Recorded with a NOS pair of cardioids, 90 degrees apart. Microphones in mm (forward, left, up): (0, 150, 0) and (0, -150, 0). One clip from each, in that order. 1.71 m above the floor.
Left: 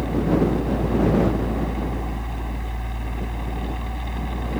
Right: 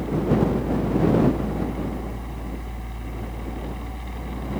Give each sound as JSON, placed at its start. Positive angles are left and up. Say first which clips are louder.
{"t": 0.0, "sound": "a fan", "louder": "left 1 dB", "azimuth_deg": 30}